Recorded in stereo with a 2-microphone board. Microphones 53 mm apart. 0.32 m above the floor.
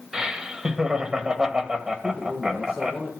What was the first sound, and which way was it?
Laughter, 15° right (ahead or behind).